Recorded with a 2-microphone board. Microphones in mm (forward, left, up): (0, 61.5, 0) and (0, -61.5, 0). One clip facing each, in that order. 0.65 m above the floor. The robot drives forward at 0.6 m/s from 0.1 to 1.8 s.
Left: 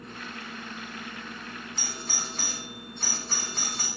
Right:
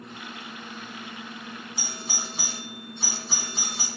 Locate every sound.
1.8 s a doorbell: 10° right (ahead or behind), 1.9 m